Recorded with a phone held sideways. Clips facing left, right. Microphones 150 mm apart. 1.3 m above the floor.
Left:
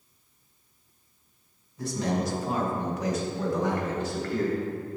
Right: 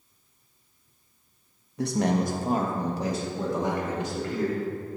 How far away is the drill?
No drill in this recording.